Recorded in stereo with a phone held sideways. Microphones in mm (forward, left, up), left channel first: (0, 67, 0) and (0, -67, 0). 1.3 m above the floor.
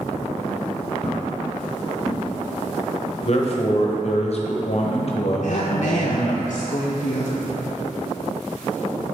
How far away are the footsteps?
About 1.5 m.